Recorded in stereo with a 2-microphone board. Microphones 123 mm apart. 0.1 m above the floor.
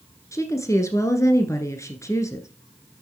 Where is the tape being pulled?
No tape being pulled in this recording.